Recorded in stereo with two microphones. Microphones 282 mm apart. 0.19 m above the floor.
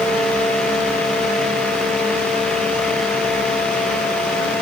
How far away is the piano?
No piano in this recording.